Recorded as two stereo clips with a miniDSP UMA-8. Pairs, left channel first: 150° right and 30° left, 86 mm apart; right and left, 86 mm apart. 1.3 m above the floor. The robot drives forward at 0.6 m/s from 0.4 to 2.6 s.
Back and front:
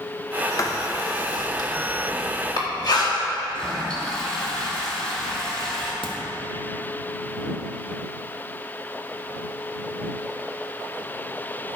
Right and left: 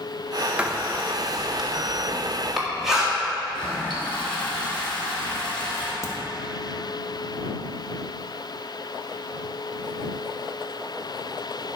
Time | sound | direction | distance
0.6 | writing | 165° left | 0.7 m
3.5 | a toilet flushing | 70° right | 2.5 m
6.0 | a crack | 140° right | 1.3 m